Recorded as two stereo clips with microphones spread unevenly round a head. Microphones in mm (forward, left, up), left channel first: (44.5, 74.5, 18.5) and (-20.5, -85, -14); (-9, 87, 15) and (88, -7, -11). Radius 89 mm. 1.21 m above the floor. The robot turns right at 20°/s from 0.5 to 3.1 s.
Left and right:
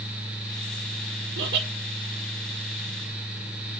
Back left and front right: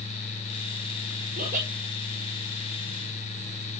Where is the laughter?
90° right, 3.5 m; by 1.7 s 80° right, 3.5 m.